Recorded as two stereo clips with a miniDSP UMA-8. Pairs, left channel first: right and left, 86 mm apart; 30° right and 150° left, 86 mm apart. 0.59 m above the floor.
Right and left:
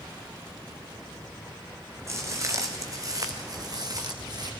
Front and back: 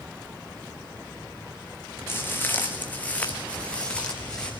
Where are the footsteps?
35° left, 3 m; by 4.5 s 50° left, 3.5 m.